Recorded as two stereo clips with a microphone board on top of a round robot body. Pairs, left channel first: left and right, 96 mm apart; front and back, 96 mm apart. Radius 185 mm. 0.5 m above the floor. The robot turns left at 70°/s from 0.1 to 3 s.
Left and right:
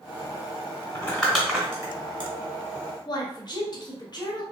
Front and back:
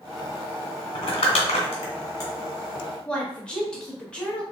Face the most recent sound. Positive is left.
turn(degrees=75)